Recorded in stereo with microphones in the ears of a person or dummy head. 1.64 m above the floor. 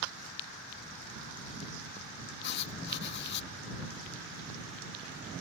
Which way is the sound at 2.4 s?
60° left (ahead or behind).